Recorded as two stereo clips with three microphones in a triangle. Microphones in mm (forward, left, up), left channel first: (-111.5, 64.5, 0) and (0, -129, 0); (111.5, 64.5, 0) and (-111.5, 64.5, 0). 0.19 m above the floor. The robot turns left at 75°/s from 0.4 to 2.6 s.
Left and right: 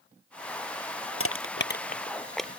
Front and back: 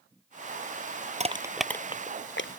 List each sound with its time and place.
1.2 s crushing: 120° left; by 2.5 s 20° left